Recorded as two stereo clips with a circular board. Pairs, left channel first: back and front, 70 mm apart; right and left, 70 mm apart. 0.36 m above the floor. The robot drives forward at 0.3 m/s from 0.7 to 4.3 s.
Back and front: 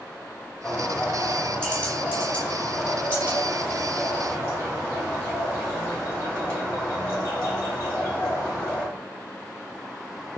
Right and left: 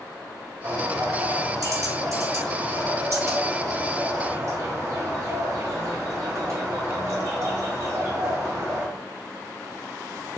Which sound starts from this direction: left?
A bird, at 0.6 s.